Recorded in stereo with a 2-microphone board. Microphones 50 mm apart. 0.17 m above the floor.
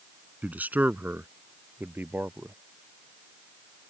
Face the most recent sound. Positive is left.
turn(degrees=-45)  # may be behind; listen again after turning